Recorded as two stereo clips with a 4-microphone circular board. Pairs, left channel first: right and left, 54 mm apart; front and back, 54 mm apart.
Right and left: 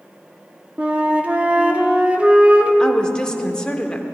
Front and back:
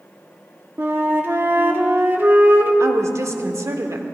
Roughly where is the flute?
Behind left.